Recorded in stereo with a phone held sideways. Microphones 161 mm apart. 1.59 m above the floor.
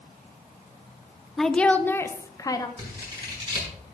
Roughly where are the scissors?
Right.